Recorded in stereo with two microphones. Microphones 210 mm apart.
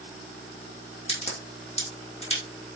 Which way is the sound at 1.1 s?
30° left (ahead or behind).